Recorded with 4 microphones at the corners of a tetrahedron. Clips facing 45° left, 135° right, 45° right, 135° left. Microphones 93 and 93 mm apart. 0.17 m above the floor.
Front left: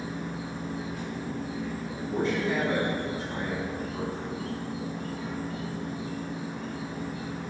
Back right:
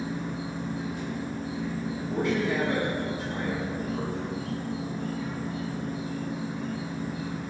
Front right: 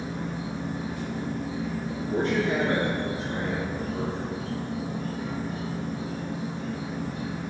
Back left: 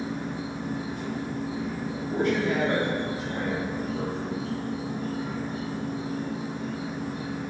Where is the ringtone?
I don't hear a ringtone.